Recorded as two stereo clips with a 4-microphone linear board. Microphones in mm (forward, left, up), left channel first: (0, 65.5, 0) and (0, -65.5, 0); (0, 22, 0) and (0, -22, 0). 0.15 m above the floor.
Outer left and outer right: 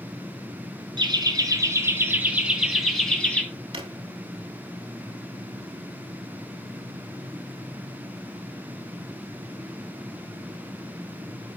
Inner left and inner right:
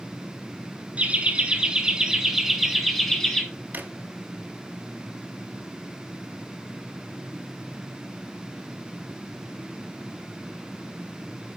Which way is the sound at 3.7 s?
45° right (ahead or behind).